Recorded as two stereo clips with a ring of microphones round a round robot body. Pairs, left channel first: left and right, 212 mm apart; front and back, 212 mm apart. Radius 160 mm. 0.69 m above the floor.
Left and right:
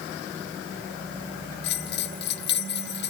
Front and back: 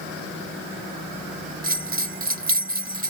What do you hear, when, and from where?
1.6 s a bell: 135° left